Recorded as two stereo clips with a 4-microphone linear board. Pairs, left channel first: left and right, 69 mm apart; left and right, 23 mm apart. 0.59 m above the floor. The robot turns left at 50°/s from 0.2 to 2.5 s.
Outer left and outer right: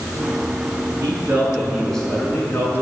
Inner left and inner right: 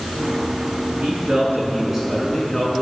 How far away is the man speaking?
About 5.5 m.